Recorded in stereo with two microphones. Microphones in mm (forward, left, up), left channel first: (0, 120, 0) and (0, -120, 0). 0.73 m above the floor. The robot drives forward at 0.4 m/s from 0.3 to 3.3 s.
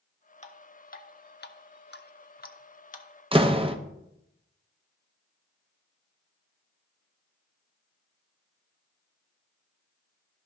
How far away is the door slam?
About 0.6 m.